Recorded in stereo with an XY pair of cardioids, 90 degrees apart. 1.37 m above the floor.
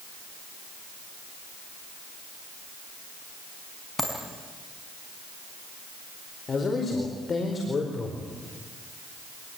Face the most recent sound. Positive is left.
turn(degrees=40)